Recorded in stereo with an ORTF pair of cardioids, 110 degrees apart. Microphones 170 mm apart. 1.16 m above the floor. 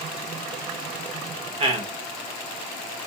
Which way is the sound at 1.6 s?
35° right.